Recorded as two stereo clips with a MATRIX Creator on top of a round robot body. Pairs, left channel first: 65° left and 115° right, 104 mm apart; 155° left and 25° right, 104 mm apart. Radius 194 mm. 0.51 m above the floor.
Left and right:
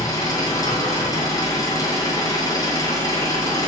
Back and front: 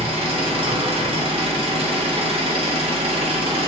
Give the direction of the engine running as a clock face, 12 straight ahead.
12 o'clock.